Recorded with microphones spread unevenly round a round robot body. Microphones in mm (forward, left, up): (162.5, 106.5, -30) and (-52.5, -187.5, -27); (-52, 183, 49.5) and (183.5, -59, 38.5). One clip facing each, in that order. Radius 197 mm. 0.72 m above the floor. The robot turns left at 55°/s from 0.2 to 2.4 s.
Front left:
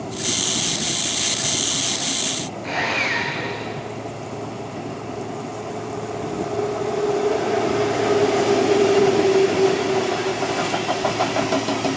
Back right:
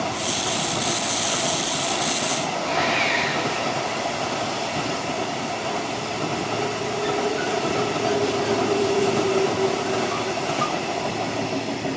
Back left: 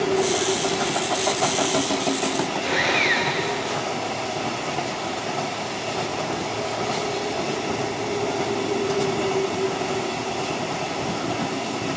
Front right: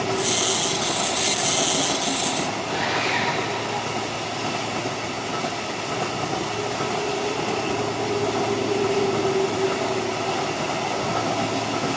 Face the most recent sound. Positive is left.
turn(degrees=135)